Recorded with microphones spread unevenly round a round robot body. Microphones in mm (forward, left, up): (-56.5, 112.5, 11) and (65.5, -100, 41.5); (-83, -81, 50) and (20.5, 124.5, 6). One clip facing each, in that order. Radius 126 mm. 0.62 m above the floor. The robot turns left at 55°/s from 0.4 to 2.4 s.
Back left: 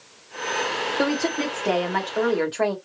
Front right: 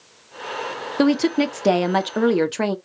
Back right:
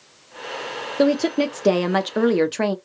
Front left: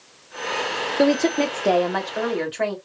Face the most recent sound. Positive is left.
turn(degrees=-95)